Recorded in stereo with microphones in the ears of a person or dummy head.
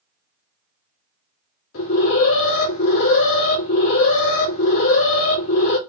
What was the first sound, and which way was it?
An alarm, 70° left (ahead or behind).